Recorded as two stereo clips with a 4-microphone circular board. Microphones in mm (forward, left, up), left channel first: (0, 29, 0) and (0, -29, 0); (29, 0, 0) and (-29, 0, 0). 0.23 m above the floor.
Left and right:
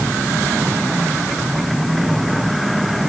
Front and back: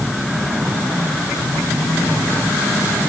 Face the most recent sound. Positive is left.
No sound to turn to.